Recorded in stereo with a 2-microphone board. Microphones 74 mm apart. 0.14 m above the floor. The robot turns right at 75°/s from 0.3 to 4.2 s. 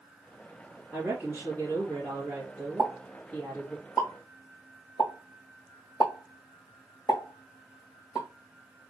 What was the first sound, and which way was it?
A woman speaking, 165° right.